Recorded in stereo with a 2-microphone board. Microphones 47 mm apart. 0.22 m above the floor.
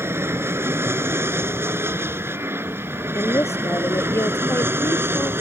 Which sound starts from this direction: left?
A woman speaking, at 3.1 s.